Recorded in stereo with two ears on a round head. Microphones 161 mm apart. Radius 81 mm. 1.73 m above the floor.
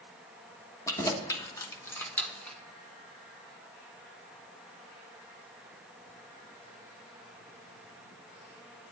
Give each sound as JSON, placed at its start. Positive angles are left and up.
{"t": 0.9, "sound": "keys jangling", "side_deg": 15, "distance_m": 1.3}